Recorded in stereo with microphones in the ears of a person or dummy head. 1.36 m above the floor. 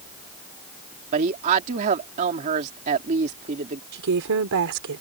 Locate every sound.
1.1 s a woman speaking: 40° right (ahead or behind)
3.9 s a woman speaking: 85° right